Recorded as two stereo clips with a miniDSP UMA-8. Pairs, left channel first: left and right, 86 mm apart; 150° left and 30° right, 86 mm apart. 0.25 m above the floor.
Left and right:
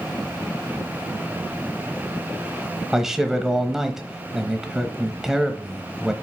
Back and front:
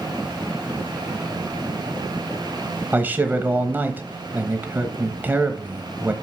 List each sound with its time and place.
2.9 s a man speaking: 15° right, 1.0 m